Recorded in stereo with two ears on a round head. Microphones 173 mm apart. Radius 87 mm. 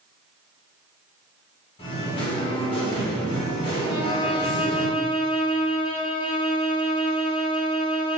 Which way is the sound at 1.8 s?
25° left (ahead or behind).